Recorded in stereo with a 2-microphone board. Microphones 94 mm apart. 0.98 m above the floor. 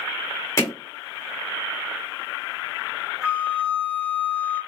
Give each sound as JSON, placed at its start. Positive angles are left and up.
{"t": 0.6, "sound": "hammering", "side_deg": 35, "distance_m": 1.3}
{"t": 3.2, "sound": "a flute", "side_deg": -20, "distance_m": 1.0}